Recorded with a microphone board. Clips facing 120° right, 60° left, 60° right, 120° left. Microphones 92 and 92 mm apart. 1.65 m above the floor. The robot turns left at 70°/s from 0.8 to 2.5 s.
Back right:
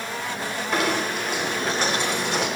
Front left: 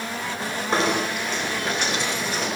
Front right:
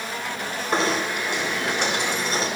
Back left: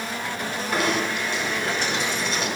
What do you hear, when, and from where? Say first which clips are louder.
0.7 s knocking: front left 1 dB, front right 1 dB; straight ahead, 4.5 m; by 2.5 s 115° right, 4.5 m